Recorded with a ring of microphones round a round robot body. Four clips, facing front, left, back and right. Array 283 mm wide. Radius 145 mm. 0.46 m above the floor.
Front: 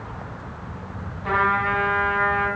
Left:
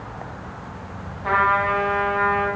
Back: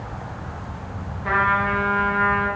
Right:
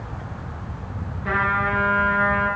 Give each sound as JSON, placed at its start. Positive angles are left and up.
{"t": 1.2, "sound": "a trumpet", "azimuth_deg": 100, "distance_m": 2.5}